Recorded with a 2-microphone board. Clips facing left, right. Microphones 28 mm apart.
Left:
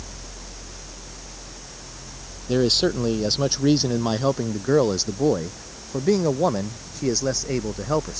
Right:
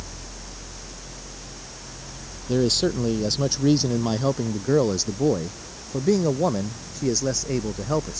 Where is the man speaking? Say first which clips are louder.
Left 2 dB; 20° left (ahead or behind); by 8.2 s 15° left (ahead or behind).